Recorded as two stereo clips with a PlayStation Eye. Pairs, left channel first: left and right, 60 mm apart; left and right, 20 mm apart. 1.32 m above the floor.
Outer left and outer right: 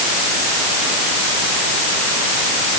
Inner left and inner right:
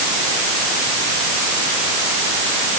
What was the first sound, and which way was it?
Only background noise.